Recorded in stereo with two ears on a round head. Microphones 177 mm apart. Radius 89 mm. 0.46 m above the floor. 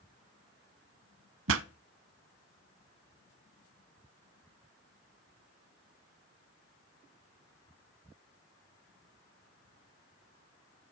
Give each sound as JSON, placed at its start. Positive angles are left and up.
{"t": 1.5, "sound": "a pop", "side_deg": -70, "distance_m": 0.7}